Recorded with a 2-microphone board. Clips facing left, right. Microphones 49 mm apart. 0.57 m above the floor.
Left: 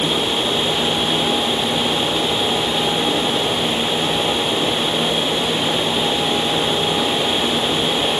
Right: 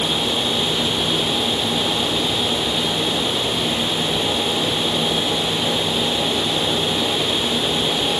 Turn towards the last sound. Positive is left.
No sound to turn to.